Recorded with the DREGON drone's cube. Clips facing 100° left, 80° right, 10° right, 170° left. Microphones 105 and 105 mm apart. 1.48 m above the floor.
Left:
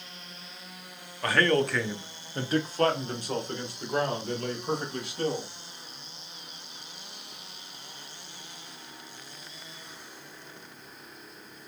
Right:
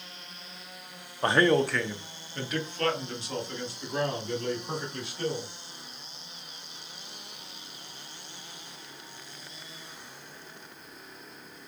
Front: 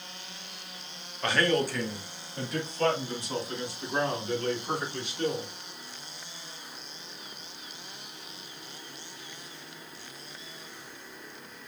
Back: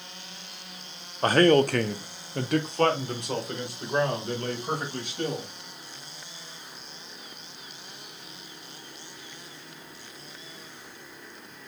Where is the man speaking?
140° right, 0.5 m; by 5.5 s 125° left, 2.5 m.